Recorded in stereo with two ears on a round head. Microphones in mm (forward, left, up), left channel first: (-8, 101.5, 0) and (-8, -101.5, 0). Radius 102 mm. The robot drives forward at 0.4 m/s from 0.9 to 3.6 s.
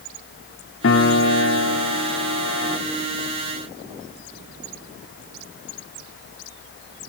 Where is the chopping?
I don't hear chopping.